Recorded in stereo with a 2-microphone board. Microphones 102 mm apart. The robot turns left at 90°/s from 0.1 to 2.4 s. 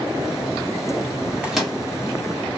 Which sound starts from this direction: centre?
A microwave, at 1.4 s.